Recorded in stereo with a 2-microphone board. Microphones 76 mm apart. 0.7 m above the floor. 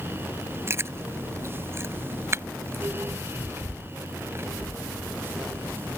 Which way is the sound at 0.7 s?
35° right (ahead or behind).